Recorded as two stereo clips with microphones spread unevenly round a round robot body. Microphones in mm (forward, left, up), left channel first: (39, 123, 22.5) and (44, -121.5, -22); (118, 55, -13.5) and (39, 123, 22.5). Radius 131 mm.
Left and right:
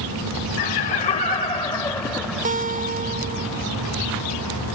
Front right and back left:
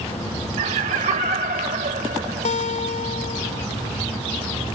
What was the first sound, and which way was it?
Laughter, 155° left.